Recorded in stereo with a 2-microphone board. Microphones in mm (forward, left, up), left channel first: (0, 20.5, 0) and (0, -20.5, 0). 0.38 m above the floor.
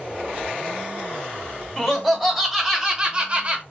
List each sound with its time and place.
1.8 s laughter: 5° left (ahead or behind), 1.8 m; by 3.6 s 35° right (ahead or behind), 1.2 m